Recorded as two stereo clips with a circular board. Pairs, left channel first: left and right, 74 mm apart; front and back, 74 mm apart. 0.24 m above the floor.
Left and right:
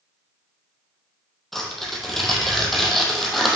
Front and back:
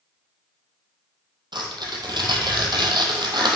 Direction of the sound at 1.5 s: Straight behind.